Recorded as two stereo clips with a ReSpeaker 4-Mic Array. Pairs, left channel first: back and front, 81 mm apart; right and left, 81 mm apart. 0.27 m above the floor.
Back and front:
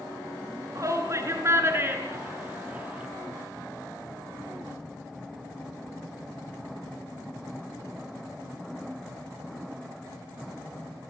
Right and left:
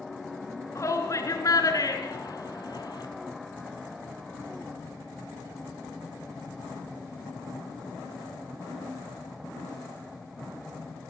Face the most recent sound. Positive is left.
turn(degrees=-70)